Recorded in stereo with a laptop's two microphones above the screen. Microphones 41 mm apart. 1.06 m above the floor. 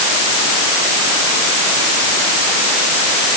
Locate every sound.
Only background noise.